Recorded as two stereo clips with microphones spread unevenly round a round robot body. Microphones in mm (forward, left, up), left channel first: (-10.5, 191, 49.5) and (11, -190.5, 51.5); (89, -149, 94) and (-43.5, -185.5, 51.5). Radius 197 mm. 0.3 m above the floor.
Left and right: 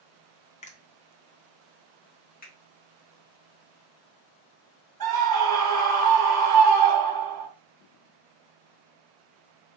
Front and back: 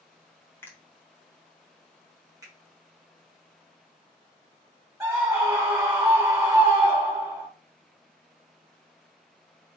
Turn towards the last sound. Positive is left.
turn(degrees=-120)